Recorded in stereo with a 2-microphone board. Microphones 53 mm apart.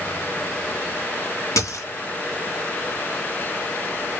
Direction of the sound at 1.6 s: 70° left (ahead or behind).